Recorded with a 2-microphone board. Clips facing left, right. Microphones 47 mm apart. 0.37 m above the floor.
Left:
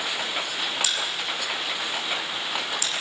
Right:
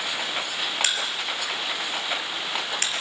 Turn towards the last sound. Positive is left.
turn(degrees=-55)  # may be behind; listen again after turning